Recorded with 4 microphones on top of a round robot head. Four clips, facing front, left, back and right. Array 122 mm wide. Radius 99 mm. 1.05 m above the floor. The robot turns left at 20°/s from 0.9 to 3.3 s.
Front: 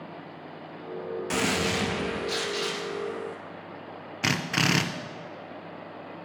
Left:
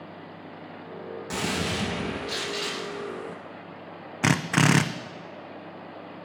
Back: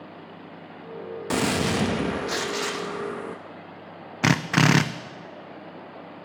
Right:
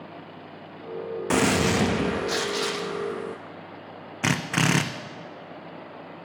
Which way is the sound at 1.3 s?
120° right.